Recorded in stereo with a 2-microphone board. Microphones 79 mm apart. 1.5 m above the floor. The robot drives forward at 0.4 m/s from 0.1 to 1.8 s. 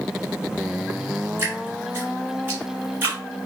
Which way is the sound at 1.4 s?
30° right (ahead or behind).